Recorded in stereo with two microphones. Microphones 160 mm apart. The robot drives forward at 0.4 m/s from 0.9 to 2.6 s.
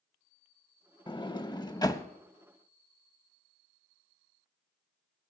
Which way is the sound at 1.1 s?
30° left (ahead or behind).